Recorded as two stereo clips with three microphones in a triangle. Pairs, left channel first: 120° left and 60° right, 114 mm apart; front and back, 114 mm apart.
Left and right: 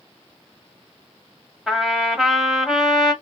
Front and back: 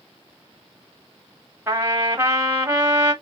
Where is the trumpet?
140° right, 1.2 m.